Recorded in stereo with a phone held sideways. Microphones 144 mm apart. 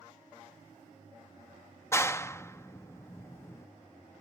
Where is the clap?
20° left (ahead or behind).